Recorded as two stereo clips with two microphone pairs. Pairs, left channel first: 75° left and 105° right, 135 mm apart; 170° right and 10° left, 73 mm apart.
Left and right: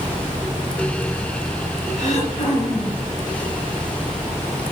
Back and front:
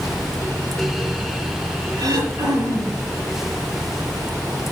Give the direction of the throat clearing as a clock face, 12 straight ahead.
11 o'clock.